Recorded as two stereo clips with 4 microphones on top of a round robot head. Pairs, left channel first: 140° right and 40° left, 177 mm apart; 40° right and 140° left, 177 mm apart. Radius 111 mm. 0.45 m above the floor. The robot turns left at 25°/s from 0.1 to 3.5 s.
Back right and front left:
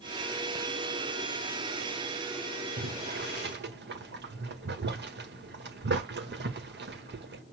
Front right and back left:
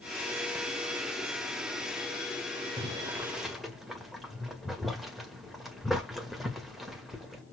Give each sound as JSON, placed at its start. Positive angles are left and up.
{"t": 2.8, "sound": "boiling", "azimuth_deg": 70, "distance_m": 1.7}